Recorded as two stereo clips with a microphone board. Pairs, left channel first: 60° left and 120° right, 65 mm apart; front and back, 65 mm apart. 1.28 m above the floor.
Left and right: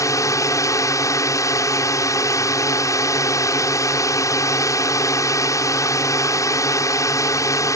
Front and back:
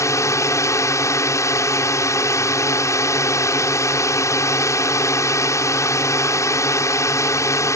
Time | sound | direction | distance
0.0 | a drone | 30° left | ?